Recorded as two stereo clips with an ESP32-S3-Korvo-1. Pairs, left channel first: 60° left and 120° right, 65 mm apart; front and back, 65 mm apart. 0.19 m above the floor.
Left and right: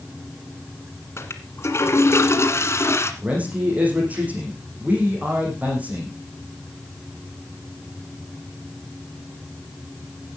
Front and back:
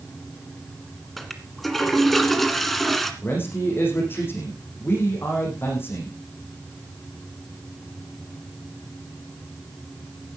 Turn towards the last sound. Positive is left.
turn(degrees=-55)